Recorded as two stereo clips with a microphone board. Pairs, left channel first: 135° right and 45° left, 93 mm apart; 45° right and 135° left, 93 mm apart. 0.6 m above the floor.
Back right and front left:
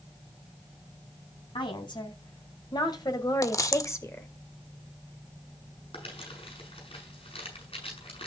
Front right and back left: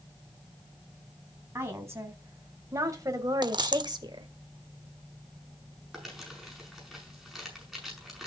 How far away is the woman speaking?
About 4.5 m.